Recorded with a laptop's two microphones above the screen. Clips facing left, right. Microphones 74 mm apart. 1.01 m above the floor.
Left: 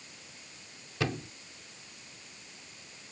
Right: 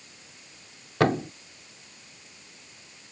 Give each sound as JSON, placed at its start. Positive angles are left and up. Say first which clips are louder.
{"t": 1.0, "sound": "a thud", "louder": "right 11 dB", "side_deg": -60}